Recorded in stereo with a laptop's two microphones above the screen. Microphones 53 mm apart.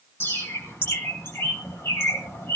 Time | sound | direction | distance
0.2 | a bird | 55° left (ahead or behind) | 3.5 m